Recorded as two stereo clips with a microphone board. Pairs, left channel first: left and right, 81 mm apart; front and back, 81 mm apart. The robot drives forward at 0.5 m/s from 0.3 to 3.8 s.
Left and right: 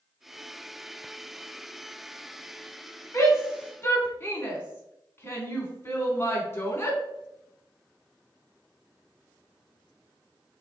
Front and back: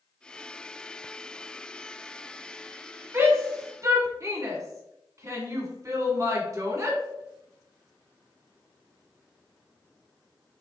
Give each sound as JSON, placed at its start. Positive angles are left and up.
{"t": 3.1, "sound": "a shout", "azimuth_deg": 135, "distance_m": 1.4}